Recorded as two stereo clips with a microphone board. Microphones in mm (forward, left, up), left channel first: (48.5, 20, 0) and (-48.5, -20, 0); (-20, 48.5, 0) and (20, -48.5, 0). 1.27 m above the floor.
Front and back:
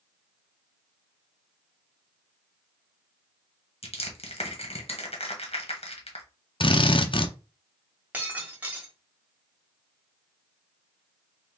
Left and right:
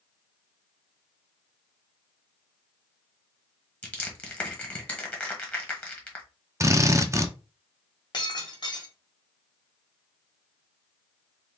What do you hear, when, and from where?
3.8 s crushing: 40° left, 1.3 m
6.6 s a drill: 10° right, 0.5 m
8.1 s breaking glass: 135° left, 1.4 m